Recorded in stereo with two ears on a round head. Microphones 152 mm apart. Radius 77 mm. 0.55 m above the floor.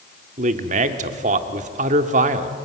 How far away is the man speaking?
About 1.5 m.